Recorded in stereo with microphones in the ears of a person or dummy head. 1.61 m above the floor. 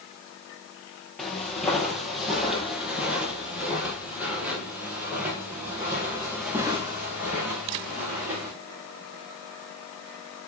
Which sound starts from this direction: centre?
Footsteps, at 1.2 s.